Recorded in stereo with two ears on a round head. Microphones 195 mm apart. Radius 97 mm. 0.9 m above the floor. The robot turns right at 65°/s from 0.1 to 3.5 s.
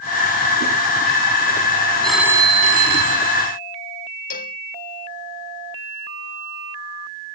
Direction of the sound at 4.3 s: 45° left (ahead or behind).